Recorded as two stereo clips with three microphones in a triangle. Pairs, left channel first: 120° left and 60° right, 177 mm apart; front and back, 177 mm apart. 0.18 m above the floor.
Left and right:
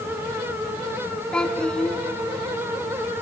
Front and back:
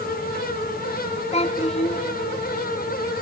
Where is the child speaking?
35° left, 1.0 m.